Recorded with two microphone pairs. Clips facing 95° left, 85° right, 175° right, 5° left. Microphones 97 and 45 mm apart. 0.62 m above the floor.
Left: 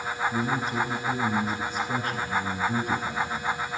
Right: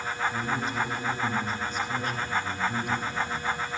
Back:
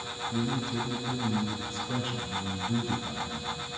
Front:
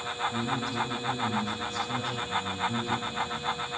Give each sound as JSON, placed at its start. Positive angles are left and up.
{"t": 0.3, "sound": "a man speaking", "azimuth_deg": 110, "distance_m": 7.5}